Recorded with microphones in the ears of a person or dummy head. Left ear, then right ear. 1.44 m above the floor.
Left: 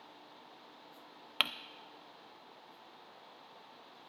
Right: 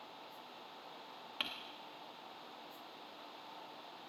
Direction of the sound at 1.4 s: 30° left (ahead or behind).